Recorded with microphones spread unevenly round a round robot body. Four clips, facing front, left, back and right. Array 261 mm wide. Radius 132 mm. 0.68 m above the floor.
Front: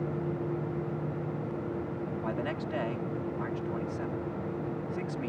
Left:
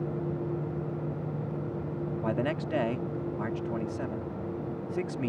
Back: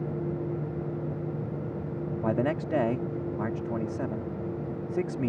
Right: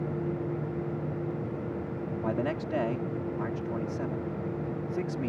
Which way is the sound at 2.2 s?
175° left.